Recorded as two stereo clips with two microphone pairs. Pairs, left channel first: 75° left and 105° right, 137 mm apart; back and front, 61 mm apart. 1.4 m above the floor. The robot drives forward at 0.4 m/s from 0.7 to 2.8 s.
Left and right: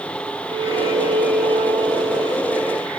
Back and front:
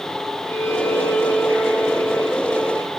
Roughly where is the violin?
Behind right.